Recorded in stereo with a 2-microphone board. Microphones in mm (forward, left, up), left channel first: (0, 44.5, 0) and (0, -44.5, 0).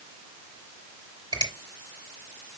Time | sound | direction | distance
1.3 | a finger snap | 50° right (ahead or behind) | 4.5 m